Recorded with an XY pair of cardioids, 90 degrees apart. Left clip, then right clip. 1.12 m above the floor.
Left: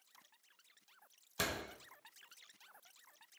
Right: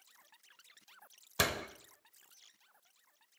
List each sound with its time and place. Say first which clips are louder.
1.4 s a door slam: right 6 dB; 55° right, 0.9 m